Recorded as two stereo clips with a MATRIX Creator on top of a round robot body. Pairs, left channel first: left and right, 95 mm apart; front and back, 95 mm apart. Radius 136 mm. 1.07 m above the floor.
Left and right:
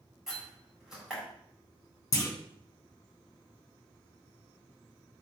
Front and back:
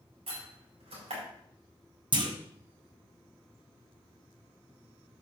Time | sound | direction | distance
0.3 | a door slam | 175° right | 4.5 m
2.1 | a clunk | 150° left | 1.9 m